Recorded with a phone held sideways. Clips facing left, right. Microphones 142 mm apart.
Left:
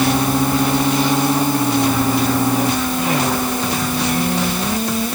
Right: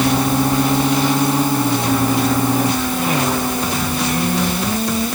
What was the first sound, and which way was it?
Only background noise.